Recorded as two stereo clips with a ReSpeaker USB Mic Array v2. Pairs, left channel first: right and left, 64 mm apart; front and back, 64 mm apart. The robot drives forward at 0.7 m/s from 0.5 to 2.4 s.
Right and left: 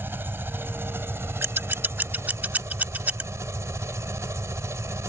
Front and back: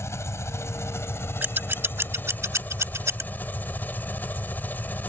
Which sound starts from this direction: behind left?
Scissors, at 1.4 s.